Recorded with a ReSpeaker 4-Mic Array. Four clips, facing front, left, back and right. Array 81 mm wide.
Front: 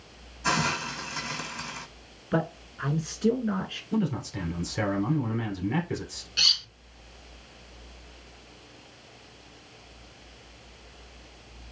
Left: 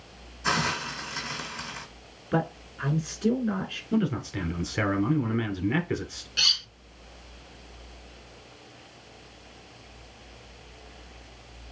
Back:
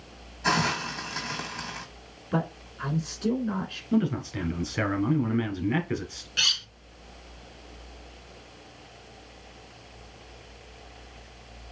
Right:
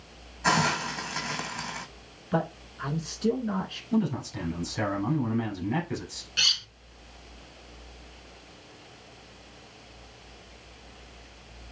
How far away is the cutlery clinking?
About 0.7 m.